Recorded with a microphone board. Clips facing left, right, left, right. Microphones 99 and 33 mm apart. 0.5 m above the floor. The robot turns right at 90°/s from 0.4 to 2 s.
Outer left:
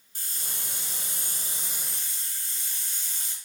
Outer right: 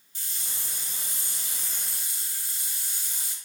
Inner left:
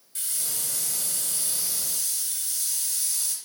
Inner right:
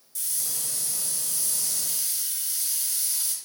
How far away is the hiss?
About 0.6 m.